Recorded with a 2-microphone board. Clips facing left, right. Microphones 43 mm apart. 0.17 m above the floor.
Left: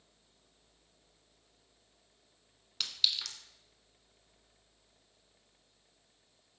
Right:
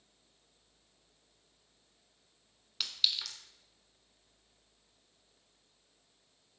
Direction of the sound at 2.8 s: 5° right (ahead or behind).